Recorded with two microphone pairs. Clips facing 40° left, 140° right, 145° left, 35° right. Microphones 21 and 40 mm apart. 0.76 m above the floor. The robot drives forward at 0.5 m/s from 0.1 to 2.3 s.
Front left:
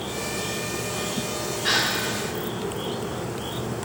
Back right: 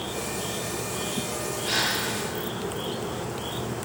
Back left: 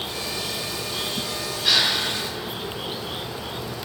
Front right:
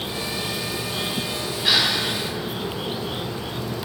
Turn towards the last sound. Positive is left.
turn(degrees=40)